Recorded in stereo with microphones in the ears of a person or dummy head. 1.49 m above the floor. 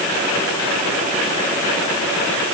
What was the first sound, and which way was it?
Only background noise.